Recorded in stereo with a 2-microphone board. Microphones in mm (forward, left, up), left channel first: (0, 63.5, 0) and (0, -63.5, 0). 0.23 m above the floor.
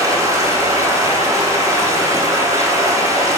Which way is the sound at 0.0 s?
30° right (ahead or behind).